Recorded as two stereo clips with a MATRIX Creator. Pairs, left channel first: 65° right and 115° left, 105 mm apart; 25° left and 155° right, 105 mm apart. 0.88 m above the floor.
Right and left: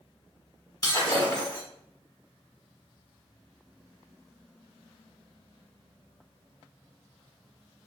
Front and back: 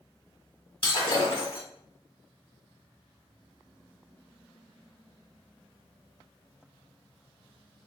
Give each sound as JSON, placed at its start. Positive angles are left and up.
{"t": 0.8, "sound": "breaking glass", "azimuth_deg": -15, "distance_m": 1.1}